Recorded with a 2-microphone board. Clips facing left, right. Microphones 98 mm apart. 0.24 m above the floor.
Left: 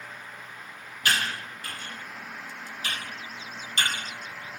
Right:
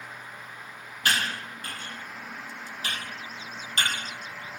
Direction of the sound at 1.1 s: 40° right (ahead or behind).